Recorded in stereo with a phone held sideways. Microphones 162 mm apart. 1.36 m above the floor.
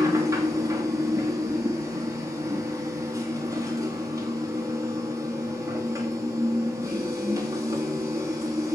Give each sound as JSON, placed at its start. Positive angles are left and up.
{"t": 0.0, "sound": "a machine running", "side_deg": -20, "distance_m": 2.5}